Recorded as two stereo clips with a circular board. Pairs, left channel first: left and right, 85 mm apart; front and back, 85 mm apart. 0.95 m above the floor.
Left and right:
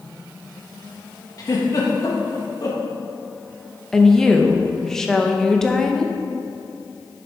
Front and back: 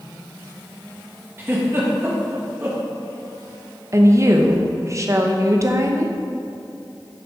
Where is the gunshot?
I don't hear a gunshot.